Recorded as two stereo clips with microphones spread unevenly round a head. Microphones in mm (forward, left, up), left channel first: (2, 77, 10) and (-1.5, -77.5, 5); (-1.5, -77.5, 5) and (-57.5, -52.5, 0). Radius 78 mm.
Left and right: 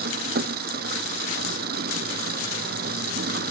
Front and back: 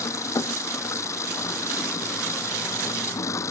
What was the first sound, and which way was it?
An engine running, 60° right.